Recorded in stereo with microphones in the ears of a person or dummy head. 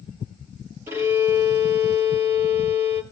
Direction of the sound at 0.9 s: 15° right (ahead or behind).